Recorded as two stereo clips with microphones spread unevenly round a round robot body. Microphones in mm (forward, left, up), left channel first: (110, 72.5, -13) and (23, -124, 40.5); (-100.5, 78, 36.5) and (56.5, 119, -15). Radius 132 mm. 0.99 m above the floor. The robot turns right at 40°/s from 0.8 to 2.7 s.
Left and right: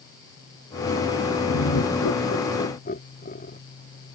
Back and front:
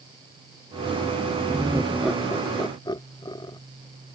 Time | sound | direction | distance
1.5 | laughter | 80° left | ?